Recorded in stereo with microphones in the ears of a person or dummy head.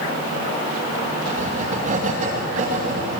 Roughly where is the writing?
Right.